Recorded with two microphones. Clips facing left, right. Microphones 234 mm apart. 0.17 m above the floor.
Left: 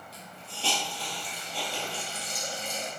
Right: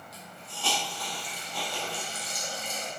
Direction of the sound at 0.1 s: 30° left (ahead or behind).